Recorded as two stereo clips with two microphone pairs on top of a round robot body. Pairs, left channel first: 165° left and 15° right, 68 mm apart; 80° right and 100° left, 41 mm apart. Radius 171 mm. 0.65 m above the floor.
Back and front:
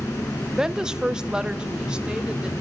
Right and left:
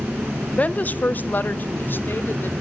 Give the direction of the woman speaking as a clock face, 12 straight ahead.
3 o'clock.